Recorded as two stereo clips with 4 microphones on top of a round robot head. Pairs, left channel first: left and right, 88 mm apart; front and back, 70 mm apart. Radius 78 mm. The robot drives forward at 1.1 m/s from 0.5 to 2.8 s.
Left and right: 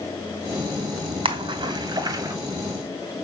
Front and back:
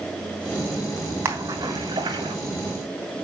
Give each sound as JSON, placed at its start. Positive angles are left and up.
{"t": 1.2, "sound": "a splash", "azimuth_deg": -110, "distance_m": 1.6}